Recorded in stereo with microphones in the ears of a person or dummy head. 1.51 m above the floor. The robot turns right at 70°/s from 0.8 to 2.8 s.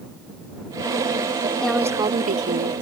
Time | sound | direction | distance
1.6 | a woman speaking | 175° left | ?